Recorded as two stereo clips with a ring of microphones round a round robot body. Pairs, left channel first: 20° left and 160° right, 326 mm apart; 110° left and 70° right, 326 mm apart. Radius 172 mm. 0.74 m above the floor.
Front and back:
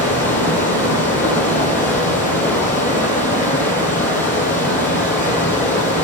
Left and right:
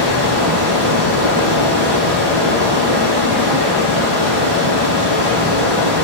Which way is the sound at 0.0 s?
60° right.